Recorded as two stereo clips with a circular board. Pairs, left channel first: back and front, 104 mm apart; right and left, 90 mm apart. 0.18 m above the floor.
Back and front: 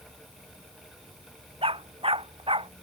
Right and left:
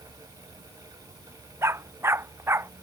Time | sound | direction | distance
1.6 | a dog barking | 25° left | ?